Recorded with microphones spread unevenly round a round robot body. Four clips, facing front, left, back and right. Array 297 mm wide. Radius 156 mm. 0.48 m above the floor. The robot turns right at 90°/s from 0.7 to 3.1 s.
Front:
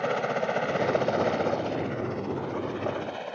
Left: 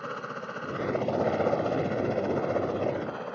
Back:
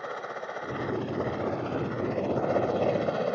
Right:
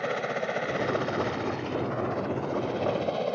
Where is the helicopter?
10° right; by 3.4 s 155° right.